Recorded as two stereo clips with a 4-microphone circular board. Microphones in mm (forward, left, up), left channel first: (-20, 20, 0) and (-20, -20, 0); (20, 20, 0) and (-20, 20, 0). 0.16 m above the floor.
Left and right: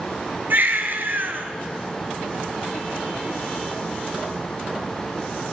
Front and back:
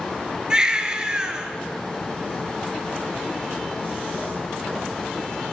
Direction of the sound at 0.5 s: 110° right.